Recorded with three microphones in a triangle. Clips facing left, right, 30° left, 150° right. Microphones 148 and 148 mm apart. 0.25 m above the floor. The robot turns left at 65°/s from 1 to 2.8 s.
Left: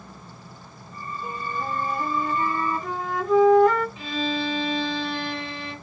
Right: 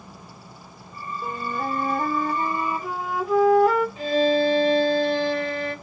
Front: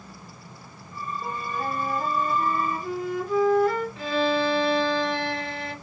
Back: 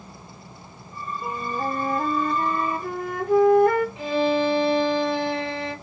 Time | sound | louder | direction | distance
1.2 | a flute | right 3 dB, back 4 dB | 70° right | 0.5 m
4.0 | a violin | right 8 dB, back 2 dB | 90° right | 1.2 m